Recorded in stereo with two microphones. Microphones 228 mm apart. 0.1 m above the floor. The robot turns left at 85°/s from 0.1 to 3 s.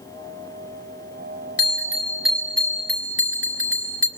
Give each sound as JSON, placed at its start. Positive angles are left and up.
{"t": 1.6, "sound": "a bell", "azimuth_deg": -120, "distance_m": 1.9}